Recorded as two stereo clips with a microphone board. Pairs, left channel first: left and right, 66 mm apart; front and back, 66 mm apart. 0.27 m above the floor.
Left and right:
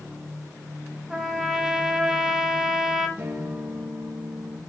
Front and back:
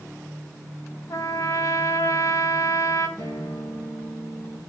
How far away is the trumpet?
About 1.1 m.